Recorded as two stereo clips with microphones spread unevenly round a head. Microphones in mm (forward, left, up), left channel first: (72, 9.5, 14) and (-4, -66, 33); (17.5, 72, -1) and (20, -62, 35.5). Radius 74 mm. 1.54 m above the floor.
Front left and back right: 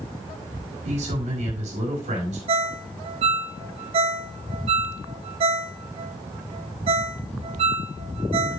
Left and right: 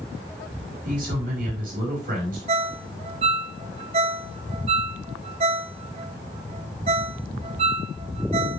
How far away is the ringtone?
About 0.8 m.